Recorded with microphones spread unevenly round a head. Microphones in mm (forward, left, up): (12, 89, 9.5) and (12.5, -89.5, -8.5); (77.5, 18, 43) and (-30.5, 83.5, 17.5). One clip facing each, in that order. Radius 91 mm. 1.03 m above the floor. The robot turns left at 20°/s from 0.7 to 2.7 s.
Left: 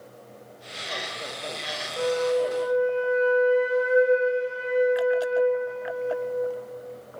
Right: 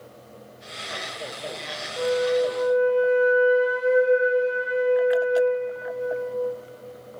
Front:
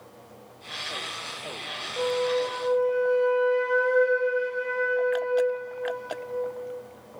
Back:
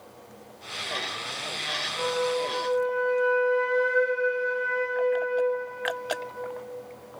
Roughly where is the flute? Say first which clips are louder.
Right 2 dB, front 2 dB; ahead.